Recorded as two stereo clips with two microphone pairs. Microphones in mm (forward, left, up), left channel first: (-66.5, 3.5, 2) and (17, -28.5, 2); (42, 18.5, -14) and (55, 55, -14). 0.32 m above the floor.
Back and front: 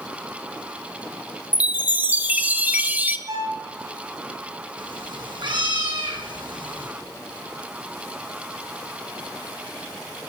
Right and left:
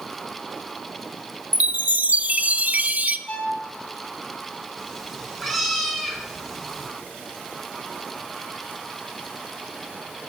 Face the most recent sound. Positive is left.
turn(degrees=-20)